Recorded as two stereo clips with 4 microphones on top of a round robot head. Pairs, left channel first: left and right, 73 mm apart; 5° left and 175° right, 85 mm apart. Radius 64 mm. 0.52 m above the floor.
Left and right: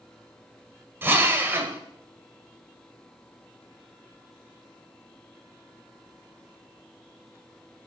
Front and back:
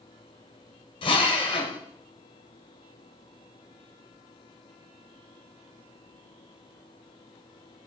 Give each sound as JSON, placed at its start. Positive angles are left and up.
{"t": 1.0, "sound": "a drill", "azimuth_deg": -30, "distance_m": 1.7}